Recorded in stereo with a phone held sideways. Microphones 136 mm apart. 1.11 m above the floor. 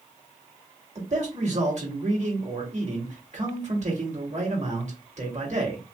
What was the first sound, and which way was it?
A man speaking, 55° right (ahead or behind).